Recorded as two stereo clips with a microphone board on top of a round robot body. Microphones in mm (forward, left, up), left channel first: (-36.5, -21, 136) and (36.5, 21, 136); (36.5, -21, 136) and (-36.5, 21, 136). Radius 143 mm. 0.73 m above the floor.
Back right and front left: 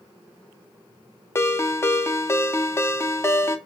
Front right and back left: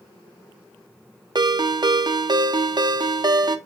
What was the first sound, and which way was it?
A ringtone, 160° left.